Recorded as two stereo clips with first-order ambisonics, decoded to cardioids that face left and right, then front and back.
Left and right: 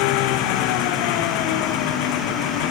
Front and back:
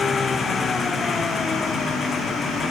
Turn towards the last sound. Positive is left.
turn(degrees=75)